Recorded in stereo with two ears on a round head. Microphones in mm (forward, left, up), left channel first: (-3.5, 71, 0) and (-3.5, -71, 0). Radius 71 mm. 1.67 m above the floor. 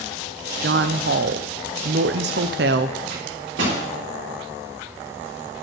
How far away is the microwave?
About 4 m.